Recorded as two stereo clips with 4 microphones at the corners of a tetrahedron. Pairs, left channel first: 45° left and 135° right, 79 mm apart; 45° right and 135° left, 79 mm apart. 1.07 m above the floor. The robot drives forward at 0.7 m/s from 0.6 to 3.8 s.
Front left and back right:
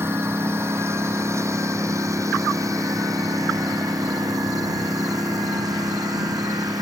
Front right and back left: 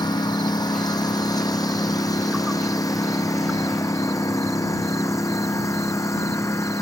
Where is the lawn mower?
75° right; by 6.8 s 95° right.